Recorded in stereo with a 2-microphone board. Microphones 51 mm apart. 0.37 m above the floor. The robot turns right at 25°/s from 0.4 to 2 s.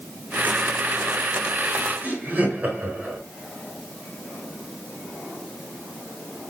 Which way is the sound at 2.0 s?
30° right (ahead or behind).